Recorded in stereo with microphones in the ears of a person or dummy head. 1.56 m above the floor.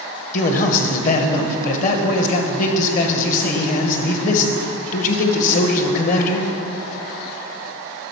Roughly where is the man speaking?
Left.